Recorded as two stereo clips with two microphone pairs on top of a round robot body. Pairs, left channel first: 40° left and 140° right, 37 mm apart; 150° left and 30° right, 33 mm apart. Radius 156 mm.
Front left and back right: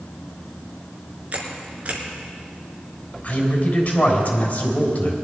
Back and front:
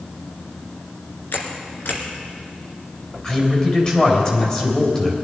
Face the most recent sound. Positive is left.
turn(degrees=90)